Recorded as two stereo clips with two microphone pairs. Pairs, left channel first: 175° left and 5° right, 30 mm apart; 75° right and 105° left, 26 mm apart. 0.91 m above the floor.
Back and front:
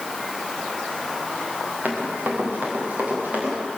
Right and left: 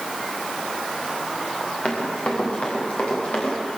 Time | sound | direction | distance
1.9 | running footsteps | 40° right | 8.5 m